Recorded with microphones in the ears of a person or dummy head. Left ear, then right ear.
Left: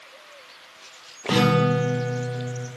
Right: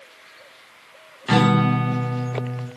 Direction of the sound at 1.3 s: 35° right (ahead or behind).